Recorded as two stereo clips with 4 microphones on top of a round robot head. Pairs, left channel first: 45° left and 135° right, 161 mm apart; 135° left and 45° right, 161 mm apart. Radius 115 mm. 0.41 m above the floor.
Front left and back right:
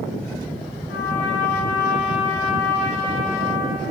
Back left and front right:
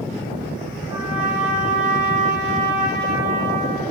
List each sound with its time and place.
0.9 s a trumpet: 25° left, 5 m